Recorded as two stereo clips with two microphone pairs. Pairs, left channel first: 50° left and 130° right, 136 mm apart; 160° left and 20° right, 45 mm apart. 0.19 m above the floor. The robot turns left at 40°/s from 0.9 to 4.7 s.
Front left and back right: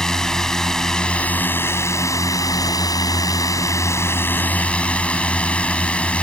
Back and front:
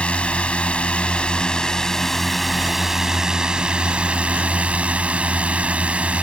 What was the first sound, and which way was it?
A drone, 135° left.